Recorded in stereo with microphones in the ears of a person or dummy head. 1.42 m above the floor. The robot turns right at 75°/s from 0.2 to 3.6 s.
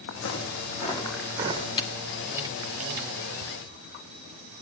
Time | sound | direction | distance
0.1 | footsteps | 75° left (ahead or behind) | 5.5 m
1.8 | a camera shutter | 20° left (ahead or behind) | 1.5 m